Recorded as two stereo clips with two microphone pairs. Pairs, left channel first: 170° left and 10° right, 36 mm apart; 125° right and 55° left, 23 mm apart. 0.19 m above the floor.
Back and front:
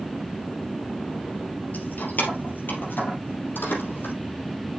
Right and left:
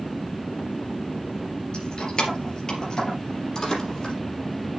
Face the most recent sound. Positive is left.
turn(degrees=175)